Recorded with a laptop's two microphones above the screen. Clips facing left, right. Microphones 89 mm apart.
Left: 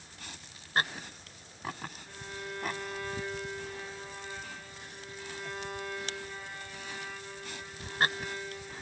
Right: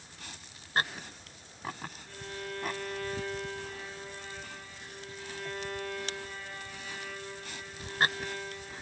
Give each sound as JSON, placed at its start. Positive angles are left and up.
{"t": 2.1, "sound": "a violin", "side_deg": 15, "distance_m": 0.8}